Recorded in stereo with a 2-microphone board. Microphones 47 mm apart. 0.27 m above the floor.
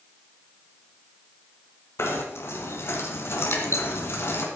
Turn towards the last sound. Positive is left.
turn(degrees=65)  # may be behind; listen again after turning